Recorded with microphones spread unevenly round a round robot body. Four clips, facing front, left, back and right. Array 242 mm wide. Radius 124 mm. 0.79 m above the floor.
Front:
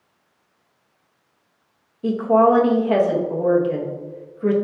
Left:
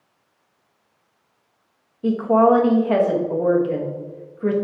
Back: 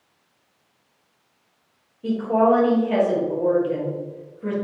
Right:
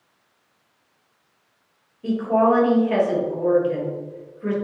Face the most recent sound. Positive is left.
turn(degrees=65)